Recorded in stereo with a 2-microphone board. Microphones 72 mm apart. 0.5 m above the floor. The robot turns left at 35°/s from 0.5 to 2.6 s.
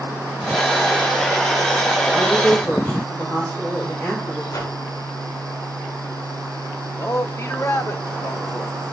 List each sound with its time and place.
2.1 s a woman speaking: 10° left (ahead or behind), 3 m; by 4.4 s 25° left (ahead or behind), 3 m
4.5 s a whoosh: 55° left (ahead or behind), 1.9 m
7.0 s a man speaking: 40° left (ahead or behind), 0.9 m